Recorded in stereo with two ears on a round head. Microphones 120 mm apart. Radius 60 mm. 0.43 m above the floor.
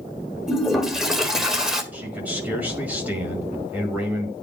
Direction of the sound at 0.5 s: 5° right (ahead or behind).